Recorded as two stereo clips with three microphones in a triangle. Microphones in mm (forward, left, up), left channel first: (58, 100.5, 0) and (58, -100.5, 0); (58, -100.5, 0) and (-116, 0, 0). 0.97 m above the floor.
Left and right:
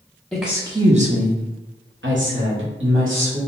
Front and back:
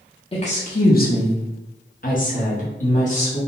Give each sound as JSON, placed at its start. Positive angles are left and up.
{"t": 0.3, "sound": "a woman speaking", "azimuth_deg": 10, "distance_m": 0.5}